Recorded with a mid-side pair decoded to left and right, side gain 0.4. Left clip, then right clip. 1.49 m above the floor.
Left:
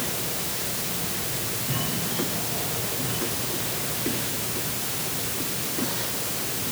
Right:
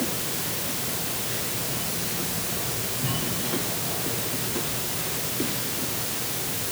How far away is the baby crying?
I don't hear a baby crying.